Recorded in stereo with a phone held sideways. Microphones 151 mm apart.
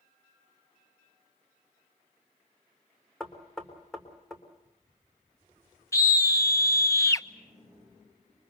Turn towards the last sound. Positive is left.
turn(degrees=20)  # may be behind; listen again after turning